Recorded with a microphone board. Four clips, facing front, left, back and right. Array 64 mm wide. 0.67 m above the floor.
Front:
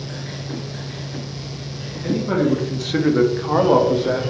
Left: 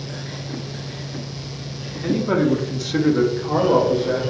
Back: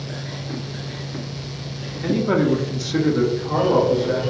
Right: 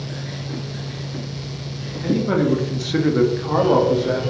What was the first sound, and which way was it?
A man speaking, 170° left.